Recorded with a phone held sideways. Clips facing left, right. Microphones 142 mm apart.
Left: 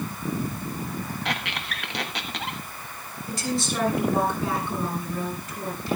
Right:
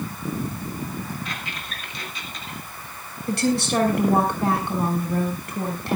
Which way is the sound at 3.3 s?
65° right (ahead or behind).